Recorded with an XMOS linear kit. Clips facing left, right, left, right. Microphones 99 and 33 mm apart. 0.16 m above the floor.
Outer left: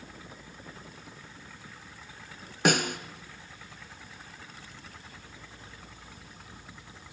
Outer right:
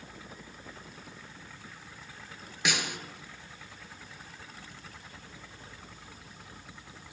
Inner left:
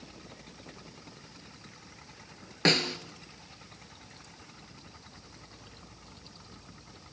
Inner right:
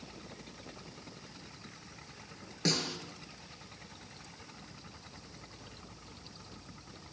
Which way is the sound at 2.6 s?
50° left (ahead or behind).